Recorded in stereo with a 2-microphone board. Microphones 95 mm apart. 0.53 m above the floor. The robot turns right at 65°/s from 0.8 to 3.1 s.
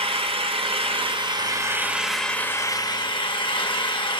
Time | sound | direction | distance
0.0 | an engine running | 85° right | 1.0 m